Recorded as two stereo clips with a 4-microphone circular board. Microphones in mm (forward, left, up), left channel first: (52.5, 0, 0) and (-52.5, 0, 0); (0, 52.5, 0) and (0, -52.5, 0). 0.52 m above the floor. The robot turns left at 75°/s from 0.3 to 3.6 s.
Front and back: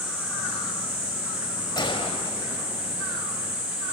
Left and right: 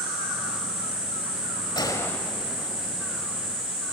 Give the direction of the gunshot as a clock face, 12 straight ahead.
11 o'clock.